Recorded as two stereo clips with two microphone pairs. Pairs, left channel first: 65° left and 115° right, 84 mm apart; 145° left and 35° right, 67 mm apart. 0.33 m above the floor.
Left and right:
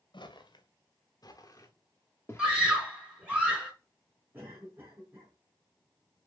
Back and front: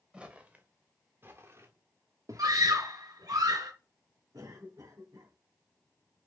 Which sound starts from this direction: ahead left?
Footsteps, at 0.1 s.